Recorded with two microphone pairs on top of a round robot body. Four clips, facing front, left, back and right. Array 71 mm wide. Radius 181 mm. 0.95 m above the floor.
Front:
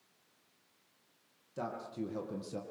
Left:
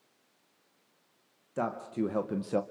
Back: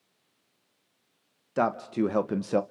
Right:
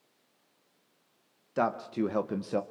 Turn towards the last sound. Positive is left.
turn(degrees=180)